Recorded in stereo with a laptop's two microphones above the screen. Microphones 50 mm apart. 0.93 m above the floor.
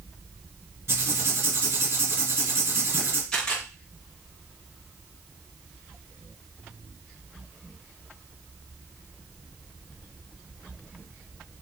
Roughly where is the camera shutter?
Centre.